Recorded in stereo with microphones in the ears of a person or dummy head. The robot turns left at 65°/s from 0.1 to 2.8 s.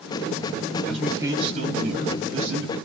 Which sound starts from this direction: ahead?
A man speaking, at 0.8 s.